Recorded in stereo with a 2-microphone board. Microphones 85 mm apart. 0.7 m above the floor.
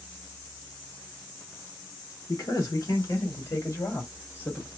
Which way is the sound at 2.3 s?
55° left (ahead or behind).